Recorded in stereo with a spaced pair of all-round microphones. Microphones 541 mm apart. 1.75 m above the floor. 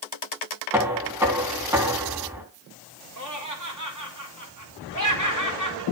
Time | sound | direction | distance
0.7 | knocking | 5° right (ahead or behind) | 3 m
3.2 | laughter | 35° right (ahead or behind) | 4 m